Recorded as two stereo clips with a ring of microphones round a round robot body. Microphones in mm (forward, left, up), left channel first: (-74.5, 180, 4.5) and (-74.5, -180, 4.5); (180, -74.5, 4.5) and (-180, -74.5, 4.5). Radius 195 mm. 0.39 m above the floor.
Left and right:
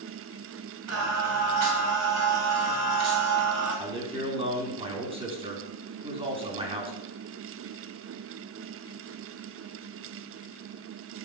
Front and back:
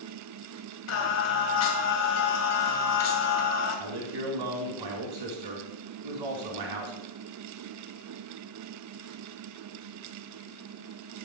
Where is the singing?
40° right, 2.5 m.